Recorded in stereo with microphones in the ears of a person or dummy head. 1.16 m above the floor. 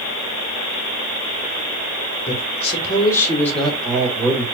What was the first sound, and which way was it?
A man speaking, 40° left (ahead or behind).